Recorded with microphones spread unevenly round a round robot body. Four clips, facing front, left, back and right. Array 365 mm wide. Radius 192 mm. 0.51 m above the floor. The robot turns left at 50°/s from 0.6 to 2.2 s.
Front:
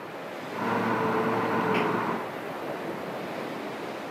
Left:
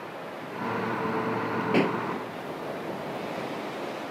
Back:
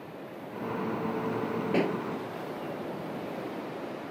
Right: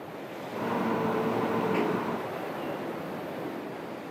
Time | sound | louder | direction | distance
1.7 | a pop | left 3 dB, front 2 dB | 105° left | ?